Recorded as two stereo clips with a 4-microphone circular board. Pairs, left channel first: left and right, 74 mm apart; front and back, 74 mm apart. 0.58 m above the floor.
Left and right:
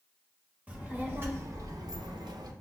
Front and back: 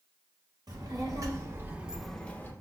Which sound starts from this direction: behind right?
A child speaking, at 0.7 s.